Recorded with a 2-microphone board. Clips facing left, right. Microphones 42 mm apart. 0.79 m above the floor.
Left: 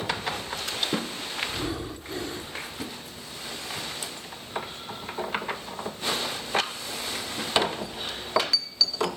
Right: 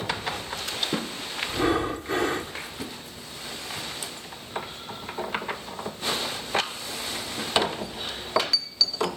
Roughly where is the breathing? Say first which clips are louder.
Right 8 dB; right.